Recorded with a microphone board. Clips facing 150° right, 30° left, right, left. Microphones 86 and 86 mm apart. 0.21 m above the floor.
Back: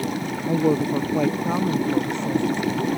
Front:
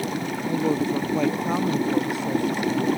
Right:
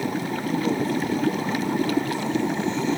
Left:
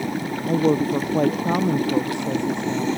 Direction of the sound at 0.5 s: 140° left.